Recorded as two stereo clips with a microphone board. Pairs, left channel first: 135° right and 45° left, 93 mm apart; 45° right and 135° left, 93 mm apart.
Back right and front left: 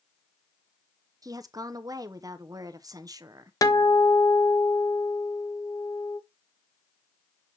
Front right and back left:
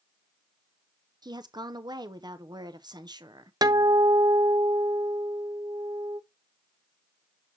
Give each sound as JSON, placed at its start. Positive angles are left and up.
{"t": 1.2, "sound": "a woman speaking", "azimuth_deg": 95, "distance_m": 0.8}
{"t": 3.6, "sound": "a guitar", "azimuth_deg": 175, "distance_m": 0.5}